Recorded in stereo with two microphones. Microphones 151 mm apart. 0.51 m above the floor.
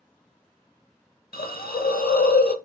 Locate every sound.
1.3 s a hiss: 85° left, 0.7 m